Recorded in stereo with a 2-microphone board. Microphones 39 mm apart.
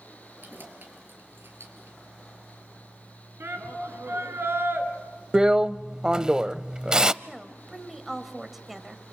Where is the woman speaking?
5° right (ahead or behind), 1.7 m.